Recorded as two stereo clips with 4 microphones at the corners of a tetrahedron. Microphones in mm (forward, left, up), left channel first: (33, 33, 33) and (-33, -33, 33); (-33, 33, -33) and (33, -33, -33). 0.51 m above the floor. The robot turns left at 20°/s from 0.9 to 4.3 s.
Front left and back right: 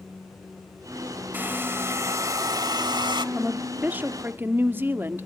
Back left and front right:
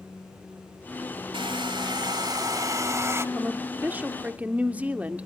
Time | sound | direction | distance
1.3 | a hair dryer | 65° right | 0.9 m
3.4 | a woman speaking | 80° right | 0.9 m